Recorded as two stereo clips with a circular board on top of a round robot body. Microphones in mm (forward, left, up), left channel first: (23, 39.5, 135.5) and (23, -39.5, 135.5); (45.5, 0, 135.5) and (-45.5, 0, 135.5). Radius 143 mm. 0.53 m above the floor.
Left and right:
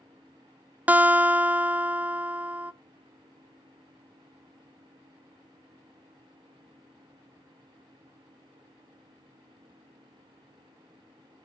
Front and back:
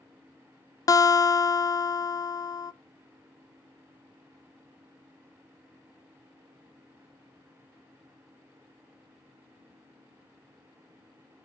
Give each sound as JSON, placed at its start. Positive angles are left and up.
{"t": 0.9, "sound": "a guitar", "azimuth_deg": -25, "distance_m": 0.5}